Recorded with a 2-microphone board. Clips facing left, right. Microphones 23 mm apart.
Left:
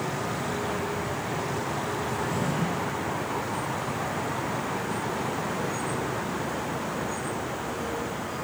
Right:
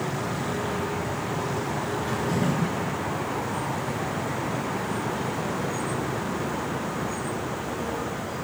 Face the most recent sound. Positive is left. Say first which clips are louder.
# right 2 dB
turn(degrees=-85)